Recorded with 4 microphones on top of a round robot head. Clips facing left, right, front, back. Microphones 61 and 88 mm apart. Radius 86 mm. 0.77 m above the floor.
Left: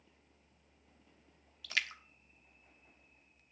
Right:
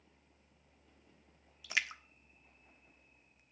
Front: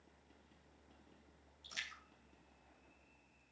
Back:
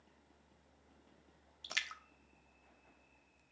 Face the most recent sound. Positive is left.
turn(degrees=-160)